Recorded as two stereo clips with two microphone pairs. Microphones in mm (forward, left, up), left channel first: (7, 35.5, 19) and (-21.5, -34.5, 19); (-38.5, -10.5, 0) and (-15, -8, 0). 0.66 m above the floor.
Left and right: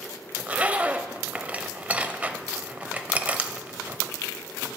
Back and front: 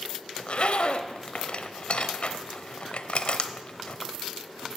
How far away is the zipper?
About 0.6 m.